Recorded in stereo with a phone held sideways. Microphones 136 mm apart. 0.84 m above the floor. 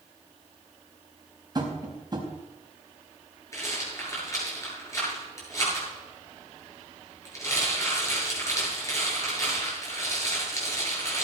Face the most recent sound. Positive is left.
turn(degrees=20)  # may be behind; listen again after turning